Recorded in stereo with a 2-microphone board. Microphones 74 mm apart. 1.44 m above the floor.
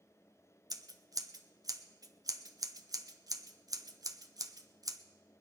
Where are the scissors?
55° right (ahead or behind), 0.7 m.